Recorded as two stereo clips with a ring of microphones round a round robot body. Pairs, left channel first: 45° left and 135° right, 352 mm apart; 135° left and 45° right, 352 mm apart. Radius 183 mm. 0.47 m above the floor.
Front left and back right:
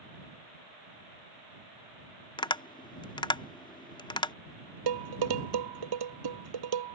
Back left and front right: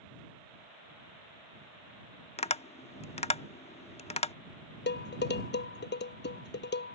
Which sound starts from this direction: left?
Tapping, at 2.4 s.